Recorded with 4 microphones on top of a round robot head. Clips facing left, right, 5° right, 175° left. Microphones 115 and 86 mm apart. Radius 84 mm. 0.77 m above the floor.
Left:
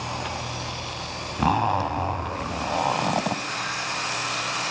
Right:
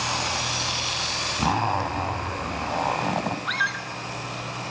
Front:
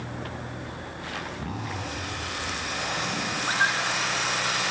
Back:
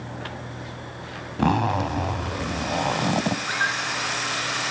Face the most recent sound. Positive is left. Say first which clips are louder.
# right 2 dB, front 1 dB
turn(degrees=-80)